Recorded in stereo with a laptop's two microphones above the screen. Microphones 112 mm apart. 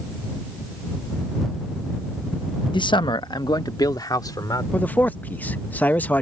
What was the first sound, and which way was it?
A man speaking, 45° left (ahead or behind).